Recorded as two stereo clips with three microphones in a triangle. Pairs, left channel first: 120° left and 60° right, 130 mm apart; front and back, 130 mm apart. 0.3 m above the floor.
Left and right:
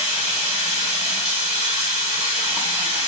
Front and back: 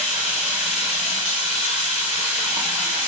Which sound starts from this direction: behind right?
Running water, at 0.0 s.